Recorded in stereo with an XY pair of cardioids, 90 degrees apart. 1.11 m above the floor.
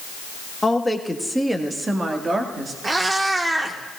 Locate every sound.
0.6 s a woman speaking: 20° left, 1.5 m; by 2.7 s 45° right, 2.5 m
2.8 s a cat meowing: 30° right, 1.4 m